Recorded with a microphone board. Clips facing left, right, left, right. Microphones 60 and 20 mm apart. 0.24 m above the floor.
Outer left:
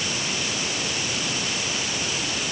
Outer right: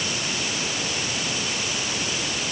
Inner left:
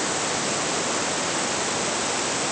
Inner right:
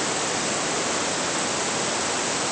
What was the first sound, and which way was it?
Only background noise.